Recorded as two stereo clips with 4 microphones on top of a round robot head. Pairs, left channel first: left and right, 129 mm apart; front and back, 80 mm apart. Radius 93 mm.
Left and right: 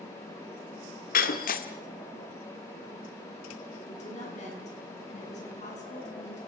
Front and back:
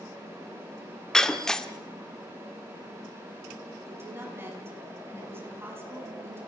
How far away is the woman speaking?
About 7 m.